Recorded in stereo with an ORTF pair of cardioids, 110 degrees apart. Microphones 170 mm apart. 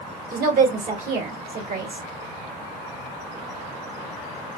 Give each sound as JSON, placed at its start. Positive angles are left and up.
{"t": 0.3, "sound": "a woman speaking", "azimuth_deg": -60, "distance_m": 1.6}